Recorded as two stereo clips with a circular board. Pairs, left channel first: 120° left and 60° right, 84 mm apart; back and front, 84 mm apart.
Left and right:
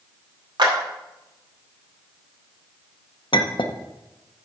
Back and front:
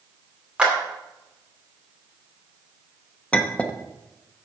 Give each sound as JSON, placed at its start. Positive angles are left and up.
{"t": 0.6, "sound": "a clap", "azimuth_deg": -80, "distance_m": 2.5}
{"t": 3.3, "sound": "a clink", "azimuth_deg": 105, "distance_m": 0.9}